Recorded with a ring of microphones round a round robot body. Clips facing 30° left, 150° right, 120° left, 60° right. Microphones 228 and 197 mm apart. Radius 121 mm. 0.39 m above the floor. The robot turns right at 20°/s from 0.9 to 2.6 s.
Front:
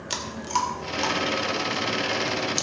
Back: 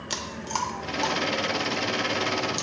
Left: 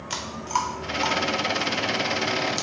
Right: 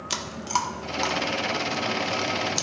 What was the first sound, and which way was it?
Chewing, 55° right.